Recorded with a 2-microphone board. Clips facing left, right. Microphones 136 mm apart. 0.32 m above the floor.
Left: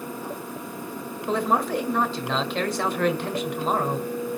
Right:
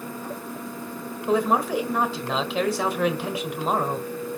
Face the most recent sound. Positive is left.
turn(degrees=-5)  # may be behind; listen again after turning